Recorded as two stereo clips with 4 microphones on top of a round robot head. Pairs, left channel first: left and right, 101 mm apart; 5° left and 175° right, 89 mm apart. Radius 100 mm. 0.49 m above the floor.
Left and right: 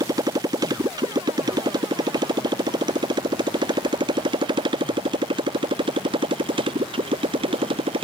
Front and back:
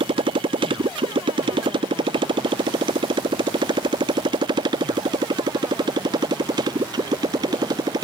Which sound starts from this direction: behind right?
A motorcycle, at 0.0 s.